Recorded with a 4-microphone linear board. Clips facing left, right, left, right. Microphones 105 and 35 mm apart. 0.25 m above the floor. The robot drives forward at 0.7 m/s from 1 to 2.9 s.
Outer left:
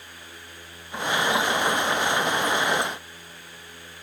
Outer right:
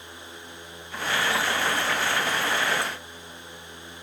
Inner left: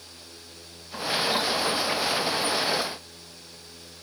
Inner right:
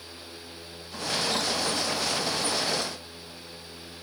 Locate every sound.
Only background noise.